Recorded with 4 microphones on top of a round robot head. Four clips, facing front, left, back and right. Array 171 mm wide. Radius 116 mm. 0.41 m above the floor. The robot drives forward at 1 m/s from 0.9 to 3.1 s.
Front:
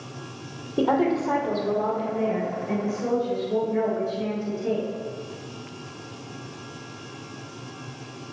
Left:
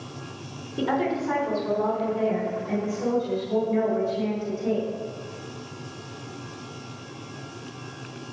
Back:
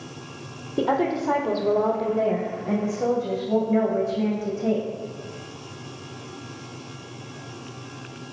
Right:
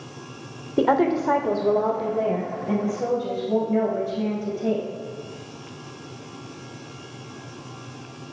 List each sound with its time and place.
0.8 s a woman speaking: 85° right, 1.7 m; by 4.8 s 150° right, 2.5 m